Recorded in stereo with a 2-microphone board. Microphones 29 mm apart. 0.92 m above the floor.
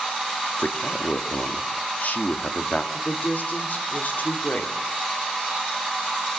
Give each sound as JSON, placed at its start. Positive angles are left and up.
{"t": 0.6, "sound": "a man speaking", "side_deg": 70, "distance_m": 2.5}
{"t": 2.9, "sound": "a woman speaking", "side_deg": 75, "distance_m": 3.0}